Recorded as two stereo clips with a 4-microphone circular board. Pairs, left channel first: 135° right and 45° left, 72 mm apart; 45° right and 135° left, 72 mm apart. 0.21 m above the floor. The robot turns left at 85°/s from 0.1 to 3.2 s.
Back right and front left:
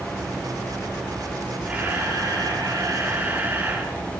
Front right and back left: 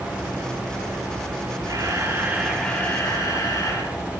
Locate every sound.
1.7 s a camera shutter: 120° left, 5.5 m; by 4.2 s 10° right, 5.5 m